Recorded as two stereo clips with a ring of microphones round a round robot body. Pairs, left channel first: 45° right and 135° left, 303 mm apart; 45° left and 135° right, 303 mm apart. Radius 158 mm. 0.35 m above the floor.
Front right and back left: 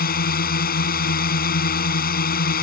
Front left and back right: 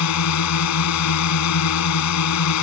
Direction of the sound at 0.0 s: 15° left.